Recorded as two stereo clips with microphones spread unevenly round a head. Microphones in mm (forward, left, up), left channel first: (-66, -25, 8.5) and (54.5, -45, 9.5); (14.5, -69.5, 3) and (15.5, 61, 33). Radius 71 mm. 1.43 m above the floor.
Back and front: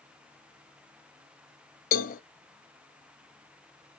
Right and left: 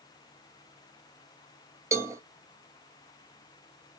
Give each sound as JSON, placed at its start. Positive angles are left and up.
{"t": 1.9, "sound": "a cowbell", "azimuth_deg": 165, "distance_m": 0.6}